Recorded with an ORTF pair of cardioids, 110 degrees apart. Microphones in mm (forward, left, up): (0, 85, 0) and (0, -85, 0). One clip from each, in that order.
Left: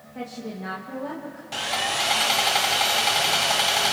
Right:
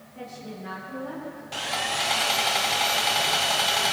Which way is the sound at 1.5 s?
10° left.